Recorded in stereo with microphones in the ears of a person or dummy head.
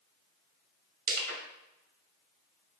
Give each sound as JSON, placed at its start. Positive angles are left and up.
{"t": 1.1, "sound": "crushing", "side_deg": -55, "distance_m": 1.9}